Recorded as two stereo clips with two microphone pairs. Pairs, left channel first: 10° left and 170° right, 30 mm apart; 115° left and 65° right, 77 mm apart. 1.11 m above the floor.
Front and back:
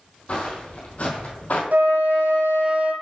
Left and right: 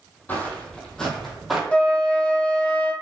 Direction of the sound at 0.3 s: 50° left.